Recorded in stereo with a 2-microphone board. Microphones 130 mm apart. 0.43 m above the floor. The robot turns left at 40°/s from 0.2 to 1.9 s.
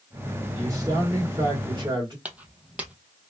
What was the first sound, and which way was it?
A man speaking, 40° right.